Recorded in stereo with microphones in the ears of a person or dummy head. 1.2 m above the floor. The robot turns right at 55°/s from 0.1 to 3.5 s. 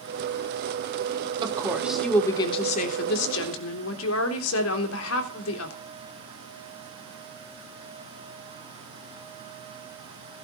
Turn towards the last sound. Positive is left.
turn(degrees=85)